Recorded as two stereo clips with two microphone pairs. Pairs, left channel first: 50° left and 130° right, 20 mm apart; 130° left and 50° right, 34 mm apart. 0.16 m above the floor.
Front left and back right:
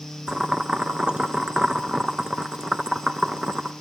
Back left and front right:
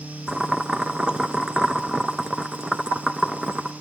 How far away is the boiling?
About 0.7 m.